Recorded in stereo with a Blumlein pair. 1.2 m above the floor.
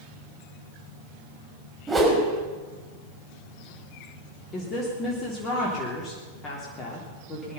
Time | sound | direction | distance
1.9 | a whoosh | 10° right | 5 m
4.5 | a woman speaking | 25° left | 3 m